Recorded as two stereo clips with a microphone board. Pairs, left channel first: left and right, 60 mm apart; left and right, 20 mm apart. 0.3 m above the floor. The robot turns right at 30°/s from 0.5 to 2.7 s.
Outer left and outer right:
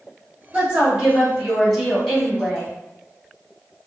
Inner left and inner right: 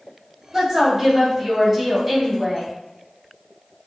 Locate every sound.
0.5 s a woman speaking: 30° right, 1.9 m; by 2.7 s 35° left, 1.9 m